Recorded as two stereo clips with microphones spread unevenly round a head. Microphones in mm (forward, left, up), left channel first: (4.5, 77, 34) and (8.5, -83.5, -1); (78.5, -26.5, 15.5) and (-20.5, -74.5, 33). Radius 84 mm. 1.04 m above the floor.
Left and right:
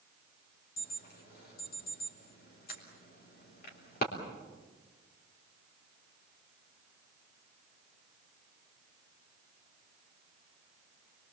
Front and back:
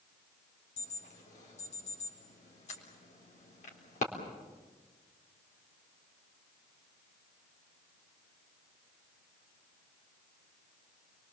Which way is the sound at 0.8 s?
55° left.